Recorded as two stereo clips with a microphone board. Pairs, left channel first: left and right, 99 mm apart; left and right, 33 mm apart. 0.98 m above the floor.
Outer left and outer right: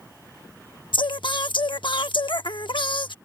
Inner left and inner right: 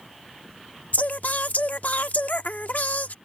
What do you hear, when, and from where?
0.9 s singing: 55° left (ahead or behind)